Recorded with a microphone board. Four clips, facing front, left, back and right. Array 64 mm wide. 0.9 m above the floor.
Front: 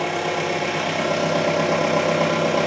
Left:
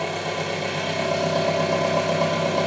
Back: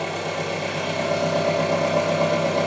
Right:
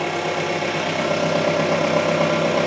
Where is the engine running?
55° right, 0.8 m.